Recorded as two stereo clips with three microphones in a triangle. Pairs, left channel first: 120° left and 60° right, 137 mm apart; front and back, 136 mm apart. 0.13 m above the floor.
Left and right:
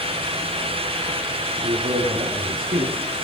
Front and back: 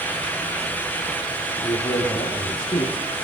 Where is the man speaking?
60° right, 5 m.